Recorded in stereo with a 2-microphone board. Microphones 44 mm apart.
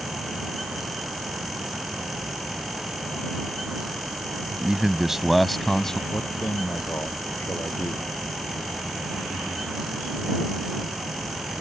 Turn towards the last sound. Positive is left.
turn(degrees=75)  # may be behind; listen again after turning